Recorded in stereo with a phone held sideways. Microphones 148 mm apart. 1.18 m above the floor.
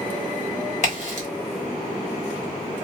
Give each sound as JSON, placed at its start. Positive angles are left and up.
{"t": 0.8, "sound": "a crack", "side_deg": 50, "distance_m": 1.6}